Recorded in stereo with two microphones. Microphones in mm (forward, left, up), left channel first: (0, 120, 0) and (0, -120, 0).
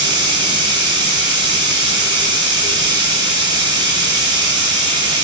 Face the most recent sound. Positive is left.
turn(degrees=-20)  # may be behind; listen again after turning